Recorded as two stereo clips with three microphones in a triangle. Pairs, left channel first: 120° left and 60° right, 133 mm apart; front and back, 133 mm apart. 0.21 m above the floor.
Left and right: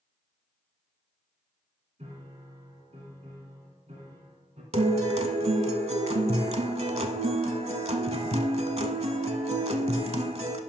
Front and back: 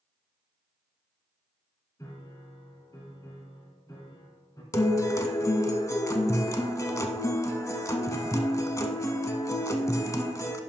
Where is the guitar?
60° right, 0.7 m.